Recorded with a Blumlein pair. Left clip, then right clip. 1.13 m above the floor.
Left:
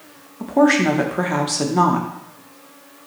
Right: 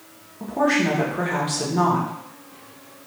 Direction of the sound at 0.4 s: 70° left.